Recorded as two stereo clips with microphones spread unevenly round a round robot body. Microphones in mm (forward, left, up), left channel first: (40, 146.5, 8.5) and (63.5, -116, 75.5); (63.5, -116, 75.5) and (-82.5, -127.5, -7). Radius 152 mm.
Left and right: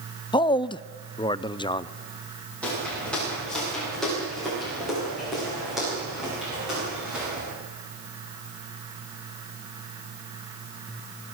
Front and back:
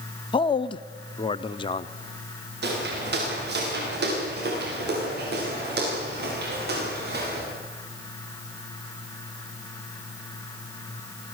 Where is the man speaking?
95° left, 0.6 m.